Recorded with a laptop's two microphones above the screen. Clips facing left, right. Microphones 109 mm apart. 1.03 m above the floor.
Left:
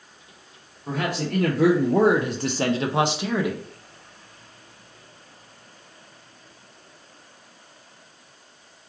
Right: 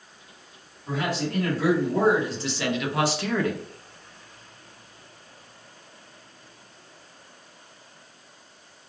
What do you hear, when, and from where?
0.9 s a man speaking: 55° left (ahead or behind), 1.0 m; by 3.6 s 5° left (ahead or behind), 0.9 m